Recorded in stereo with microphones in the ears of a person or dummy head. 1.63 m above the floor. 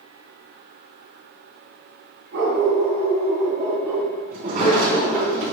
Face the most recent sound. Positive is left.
turn(degrees=-40)  # may be behind; listen again after turning